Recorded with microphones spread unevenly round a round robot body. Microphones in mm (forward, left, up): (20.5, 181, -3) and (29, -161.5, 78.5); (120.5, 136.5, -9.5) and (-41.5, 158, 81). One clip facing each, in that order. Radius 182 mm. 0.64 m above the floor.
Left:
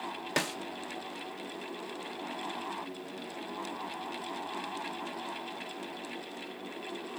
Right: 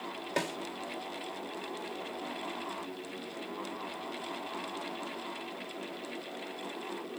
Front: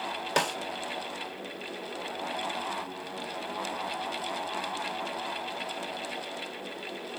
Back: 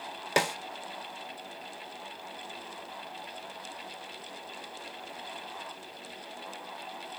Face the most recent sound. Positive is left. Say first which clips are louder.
# even, back 1 dB
turn(degrees=70)